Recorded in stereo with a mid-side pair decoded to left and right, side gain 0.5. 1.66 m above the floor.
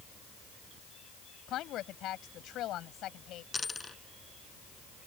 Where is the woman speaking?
65° left.